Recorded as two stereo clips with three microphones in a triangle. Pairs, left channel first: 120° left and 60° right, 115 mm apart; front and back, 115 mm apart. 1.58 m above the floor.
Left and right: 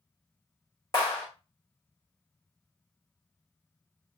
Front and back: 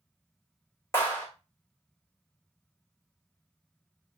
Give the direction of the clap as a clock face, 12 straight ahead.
10 o'clock.